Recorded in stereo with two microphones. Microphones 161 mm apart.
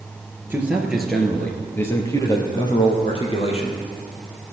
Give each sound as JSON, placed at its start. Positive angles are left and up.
{"t": 0.5, "sound": "a man speaking", "side_deg": -10, "distance_m": 1.8}